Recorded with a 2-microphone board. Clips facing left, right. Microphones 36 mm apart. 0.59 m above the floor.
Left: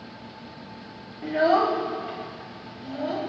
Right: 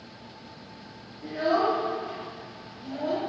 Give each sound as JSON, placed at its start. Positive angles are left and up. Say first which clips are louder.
{"t": 1.2, "sound": "a child speaking", "louder": "left 4 dB", "side_deg": 55, "distance_m": 0.7}